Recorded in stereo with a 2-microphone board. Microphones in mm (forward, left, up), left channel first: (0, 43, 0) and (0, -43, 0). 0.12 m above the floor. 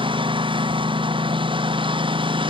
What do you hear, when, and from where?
0.0 s a lawn mower: 70° right (ahead or behind)